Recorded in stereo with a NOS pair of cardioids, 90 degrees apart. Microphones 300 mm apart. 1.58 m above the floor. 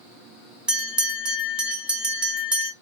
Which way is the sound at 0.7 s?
5° right.